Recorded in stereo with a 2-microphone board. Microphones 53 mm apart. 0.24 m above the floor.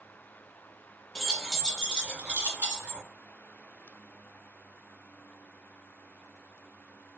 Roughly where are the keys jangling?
Centre.